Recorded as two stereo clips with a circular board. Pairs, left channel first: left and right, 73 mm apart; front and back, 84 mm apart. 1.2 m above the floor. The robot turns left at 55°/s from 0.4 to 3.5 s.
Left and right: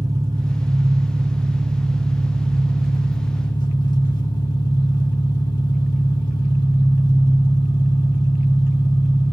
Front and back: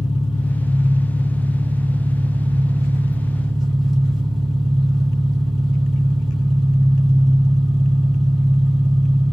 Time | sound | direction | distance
0.0 | an engine running | 95° right | 3 m